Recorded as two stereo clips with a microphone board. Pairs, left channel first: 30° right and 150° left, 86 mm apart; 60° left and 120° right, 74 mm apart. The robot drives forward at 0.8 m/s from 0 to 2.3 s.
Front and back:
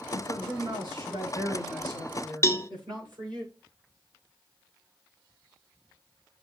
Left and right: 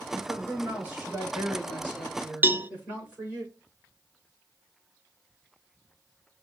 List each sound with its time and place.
0.1 s a man speaking: 170° left, 5 m
2.4 s a cowbell: 70° right, 0.6 m